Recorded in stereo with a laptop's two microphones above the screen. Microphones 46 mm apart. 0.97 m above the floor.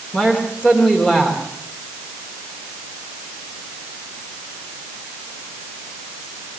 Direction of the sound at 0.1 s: 30° left (ahead or behind).